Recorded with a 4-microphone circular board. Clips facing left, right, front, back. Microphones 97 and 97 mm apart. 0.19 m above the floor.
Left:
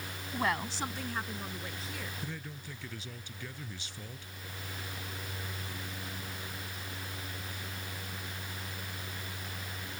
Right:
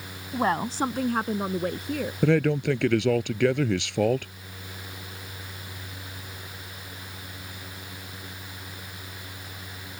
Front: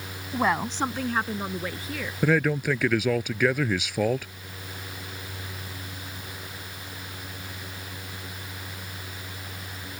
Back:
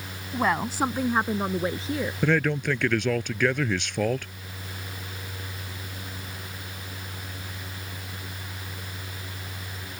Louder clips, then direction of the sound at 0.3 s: Right 8 dB, even; 75° right.